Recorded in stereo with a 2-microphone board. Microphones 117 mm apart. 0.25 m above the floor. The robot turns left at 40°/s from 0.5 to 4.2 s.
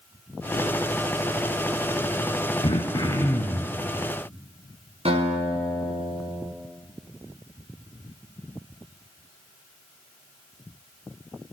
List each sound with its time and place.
2.6 s throat clearing: 50° left, 1.3 m; by 3.8 s 5° left, 1.3 m
5.0 s a guitar: 60° right (ahead or behind), 2.5 m